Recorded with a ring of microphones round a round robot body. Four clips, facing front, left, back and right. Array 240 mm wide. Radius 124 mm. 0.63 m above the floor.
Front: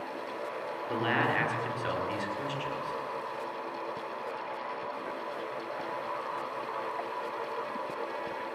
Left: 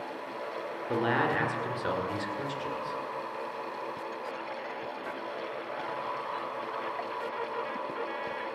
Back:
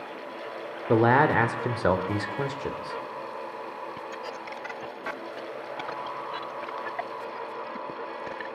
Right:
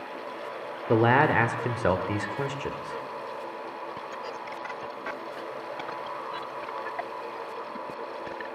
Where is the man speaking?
140° right, 2 m.